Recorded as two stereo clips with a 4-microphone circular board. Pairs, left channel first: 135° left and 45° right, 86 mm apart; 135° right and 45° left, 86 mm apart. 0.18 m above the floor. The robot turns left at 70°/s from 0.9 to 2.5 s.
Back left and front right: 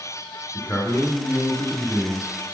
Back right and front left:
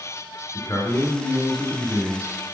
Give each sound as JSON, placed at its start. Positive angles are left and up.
{"t": 0.5, "sound": "a man speaking", "azimuth_deg": 180, "distance_m": 2.5}